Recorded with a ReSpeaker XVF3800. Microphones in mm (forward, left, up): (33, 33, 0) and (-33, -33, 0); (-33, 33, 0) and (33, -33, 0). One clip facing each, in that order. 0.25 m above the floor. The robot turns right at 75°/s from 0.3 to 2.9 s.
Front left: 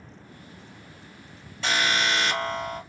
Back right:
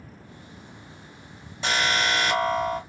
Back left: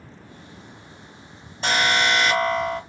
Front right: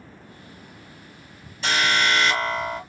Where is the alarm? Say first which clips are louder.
Back right 1 dB, back left 1 dB; 165° left, 1.9 m; by 2.8 s 105° right, 1.9 m.